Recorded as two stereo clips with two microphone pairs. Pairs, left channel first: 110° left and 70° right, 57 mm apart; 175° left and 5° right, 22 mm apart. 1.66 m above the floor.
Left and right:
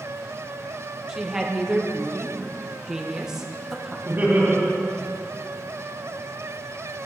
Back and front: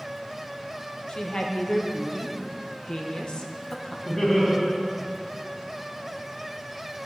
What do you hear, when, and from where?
1.1 s a woman speaking: 145° right, 1.0 m
4.0 s laughter: 115° right, 3.5 m